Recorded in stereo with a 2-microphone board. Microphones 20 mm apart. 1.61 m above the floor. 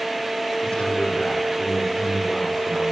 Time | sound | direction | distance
0.6 | a man speaking | 40° left (ahead or behind) | 5 m